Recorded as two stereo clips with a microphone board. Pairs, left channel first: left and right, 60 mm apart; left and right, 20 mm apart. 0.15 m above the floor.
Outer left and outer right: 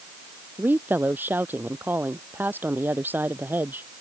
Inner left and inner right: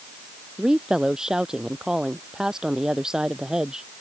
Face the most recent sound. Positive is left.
turn(degrees=-30)  # may be behind; listen again after turning